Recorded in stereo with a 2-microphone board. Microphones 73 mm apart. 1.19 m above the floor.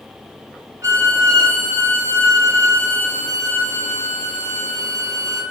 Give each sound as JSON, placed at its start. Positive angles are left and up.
{"t": 0.8, "sound": "a violin", "side_deg": -40, "distance_m": 0.8}